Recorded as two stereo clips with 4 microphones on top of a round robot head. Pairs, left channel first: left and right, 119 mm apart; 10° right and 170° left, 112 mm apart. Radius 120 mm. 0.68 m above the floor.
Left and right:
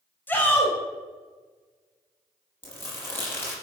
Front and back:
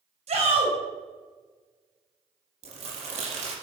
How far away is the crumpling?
About 5.5 m.